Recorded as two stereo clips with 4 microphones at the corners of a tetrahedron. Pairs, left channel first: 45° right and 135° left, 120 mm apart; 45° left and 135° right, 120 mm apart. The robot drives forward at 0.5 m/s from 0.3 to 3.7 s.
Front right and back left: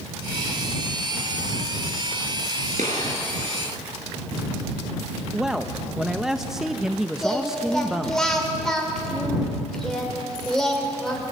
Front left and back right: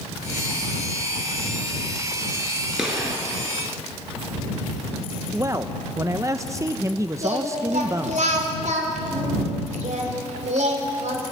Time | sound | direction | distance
2.8 | a gunshot | 140° left | 5 m
5.3 | a man speaking | 145° right | 0.6 m
7.2 | singing | 130° right | 3 m